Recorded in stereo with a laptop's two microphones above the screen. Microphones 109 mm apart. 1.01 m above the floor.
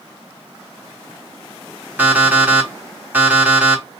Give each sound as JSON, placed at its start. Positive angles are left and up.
{"t": 2.0, "sound": "an alarm clock", "side_deg": -15, "distance_m": 1.4}